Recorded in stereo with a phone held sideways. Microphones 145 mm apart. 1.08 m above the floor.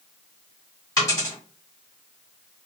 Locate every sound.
1.0 s a dropped coin: 20° left (ahead or behind), 1.5 m